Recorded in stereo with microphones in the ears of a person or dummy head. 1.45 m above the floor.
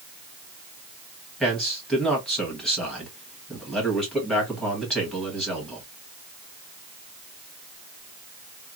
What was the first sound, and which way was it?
A man speaking, centre (ahead or behind).